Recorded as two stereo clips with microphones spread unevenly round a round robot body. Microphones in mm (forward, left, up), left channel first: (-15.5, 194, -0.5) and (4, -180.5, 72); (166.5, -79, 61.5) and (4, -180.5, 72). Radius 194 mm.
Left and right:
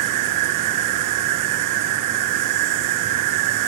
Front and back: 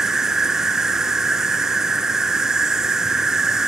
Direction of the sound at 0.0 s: 60° right.